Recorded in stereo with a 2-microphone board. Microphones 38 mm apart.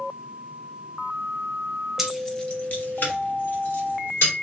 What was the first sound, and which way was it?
Keys jangling, 5° right (ahead or behind).